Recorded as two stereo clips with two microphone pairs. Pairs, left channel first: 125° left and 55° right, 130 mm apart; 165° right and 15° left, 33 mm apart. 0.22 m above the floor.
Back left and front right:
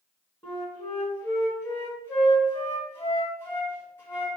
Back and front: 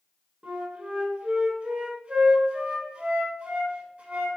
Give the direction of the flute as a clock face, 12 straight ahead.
10 o'clock.